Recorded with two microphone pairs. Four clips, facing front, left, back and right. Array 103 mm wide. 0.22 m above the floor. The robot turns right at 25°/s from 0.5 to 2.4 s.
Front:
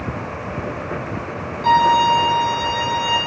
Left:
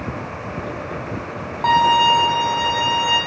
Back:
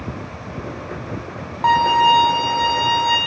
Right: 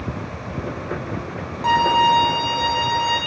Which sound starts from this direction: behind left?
A violin, at 1.6 s.